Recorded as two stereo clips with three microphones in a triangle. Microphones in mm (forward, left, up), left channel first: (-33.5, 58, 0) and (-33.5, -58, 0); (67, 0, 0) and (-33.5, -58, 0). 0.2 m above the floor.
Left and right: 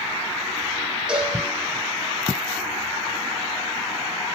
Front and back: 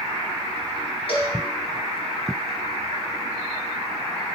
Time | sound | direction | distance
1.1 | a cowbell | 5° right | 6.5 m